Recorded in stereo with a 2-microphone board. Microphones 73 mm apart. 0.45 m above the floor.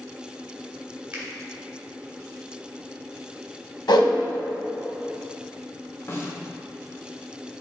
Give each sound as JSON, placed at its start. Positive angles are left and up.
{"t": 1.1, "sound": "a finger snap", "side_deg": -20, "distance_m": 2.0}
{"t": 3.9, "sound": "a whoosh", "side_deg": 75, "distance_m": 0.7}
{"t": 6.1, "sound": "a snare drum", "side_deg": 35, "distance_m": 1.1}